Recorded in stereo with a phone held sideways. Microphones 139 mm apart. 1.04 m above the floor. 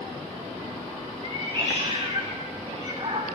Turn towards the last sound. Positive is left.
turn(degrees=-45)  # may be behind; listen again after turning